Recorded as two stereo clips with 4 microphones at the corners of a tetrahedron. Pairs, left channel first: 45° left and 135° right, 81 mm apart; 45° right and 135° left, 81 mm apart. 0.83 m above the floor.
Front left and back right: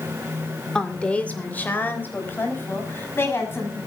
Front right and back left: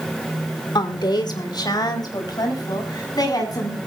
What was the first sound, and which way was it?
A woman speaking, 35° right.